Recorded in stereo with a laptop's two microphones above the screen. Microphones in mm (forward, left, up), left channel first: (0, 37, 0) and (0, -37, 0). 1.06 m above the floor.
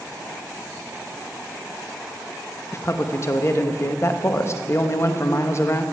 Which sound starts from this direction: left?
A man speaking, at 2.7 s.